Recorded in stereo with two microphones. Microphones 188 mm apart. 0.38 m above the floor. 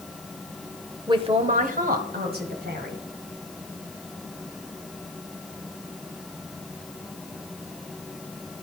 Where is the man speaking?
20° right (ahead or behind), 1.0 m; by 3.0 s 60° right (ahead or behind), 3 m.